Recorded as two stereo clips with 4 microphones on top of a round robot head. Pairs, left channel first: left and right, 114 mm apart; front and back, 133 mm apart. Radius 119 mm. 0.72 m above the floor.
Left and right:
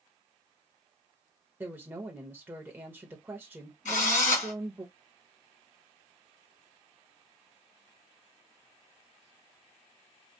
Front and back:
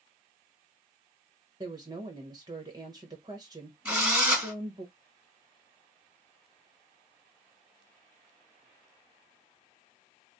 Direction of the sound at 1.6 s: 150° right.